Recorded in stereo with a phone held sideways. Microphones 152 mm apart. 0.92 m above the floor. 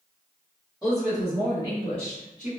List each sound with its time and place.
0.8 s a woman speaking: 5° right (ahead or behind), 1.4 m; by 2.5 s 50° left (ahead or behind), 1.4 m